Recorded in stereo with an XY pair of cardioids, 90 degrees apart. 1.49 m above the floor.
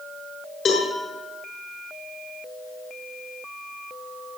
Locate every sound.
0.7 s a cowbell: 60° left, 5.5 m